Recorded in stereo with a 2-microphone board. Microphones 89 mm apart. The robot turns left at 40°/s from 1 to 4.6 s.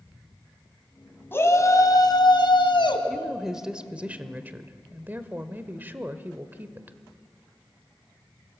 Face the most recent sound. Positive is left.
turn(degrees=-20)  # may be behind; listen again after turning